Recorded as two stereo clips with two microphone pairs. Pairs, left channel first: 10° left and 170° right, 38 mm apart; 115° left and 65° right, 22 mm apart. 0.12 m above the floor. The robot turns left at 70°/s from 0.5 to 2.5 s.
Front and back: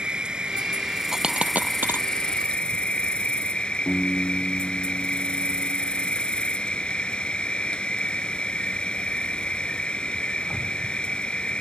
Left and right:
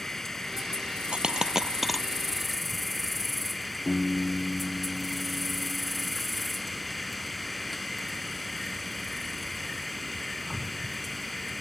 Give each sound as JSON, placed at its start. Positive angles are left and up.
{"t": 0.0, "sound": "an insect", "azimuth_deg": 170}
{"t": 1.1, "sound": "a dropped coin", "azimuth_deg": -95}
{"t": 3.9, "sound": "a piano", "azimuth_deg": 55}